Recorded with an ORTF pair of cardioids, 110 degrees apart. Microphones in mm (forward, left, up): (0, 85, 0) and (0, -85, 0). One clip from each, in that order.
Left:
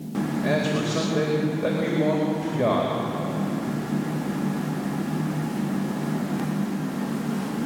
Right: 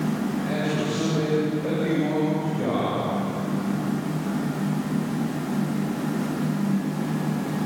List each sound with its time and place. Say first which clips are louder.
0.4 s a man speaking: left 4 dB; 55° left, 4.5 m